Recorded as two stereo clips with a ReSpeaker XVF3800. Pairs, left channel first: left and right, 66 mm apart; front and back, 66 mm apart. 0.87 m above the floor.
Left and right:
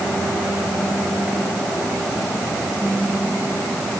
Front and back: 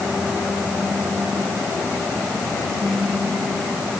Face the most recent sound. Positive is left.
No sound to turn to.